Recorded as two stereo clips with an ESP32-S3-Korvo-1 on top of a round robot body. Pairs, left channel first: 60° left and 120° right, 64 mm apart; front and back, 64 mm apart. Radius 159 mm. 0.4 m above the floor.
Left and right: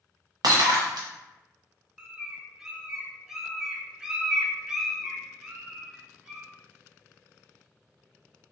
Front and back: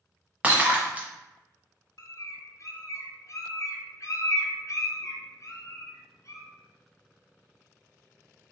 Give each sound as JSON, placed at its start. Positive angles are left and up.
{"t": 0.4, "sound": "breaking glass", "azimuth_deg": -110, "distance_m": 0.6}
{"t": 2.0, "sound": "a bird", "azimuth_deg": -40, "distance_m": 0.6}